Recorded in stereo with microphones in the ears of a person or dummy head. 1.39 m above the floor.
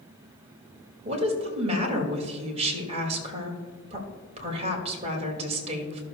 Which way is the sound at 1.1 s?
35° right (ahead or behind).